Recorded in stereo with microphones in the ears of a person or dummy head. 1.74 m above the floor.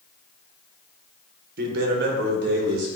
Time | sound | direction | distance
1.6 | a man speaking | 55° right (ahead or behind) | 1.3 m